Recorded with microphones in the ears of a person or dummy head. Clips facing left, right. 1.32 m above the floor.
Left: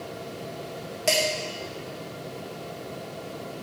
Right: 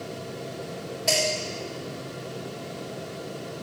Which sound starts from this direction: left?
Dishes clattering, at 1.1 s.